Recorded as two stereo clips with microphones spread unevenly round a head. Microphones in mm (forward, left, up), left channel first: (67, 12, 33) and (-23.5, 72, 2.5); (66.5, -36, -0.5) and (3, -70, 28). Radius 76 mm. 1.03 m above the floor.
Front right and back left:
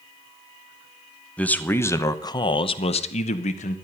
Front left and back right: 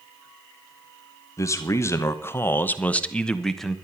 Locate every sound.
1.4 s a man speaking: 50° left, 1.3 m; by 3.8 s 45° right, 1.1 m